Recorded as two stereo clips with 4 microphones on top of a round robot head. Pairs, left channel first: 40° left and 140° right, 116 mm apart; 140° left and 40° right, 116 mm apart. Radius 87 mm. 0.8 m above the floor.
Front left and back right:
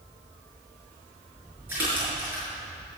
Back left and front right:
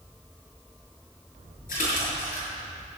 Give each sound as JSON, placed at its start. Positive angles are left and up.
{"t": 1.7, "sound": "a splash", "azimuth_deg": 145, "distance_m": 5.5}